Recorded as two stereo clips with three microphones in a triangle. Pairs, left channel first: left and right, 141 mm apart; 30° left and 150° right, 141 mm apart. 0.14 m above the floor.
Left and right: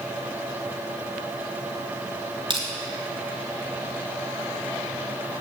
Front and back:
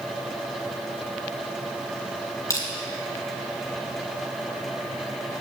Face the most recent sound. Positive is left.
turn(degrees=-40)